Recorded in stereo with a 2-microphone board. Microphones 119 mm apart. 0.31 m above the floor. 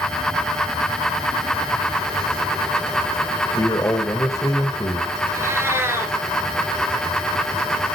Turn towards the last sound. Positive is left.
turn(degrees=-20)  # may be behind; listen again after turning